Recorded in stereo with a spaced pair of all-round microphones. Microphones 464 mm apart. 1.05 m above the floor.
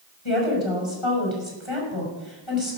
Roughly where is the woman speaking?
Left.